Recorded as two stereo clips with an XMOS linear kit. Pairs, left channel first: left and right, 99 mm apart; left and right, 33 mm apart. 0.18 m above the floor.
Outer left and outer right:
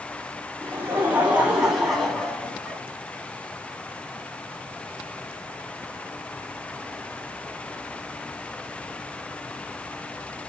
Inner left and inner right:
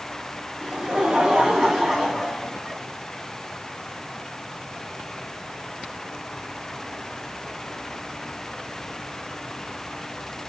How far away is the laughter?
About 2 m.